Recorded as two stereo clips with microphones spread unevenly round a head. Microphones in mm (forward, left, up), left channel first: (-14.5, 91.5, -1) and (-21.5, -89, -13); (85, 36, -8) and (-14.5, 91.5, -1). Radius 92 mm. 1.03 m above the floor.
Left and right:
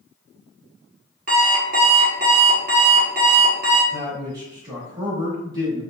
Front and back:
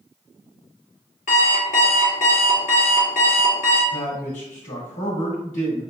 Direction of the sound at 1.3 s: 45° right.